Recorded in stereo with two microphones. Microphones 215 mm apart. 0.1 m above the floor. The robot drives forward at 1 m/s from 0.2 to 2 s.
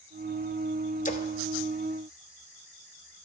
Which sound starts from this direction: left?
A splash, at 1.1 s.